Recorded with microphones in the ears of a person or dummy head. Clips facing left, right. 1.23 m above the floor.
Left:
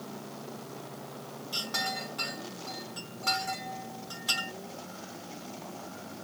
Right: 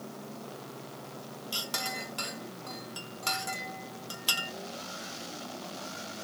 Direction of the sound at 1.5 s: 30° right (ahead or behind).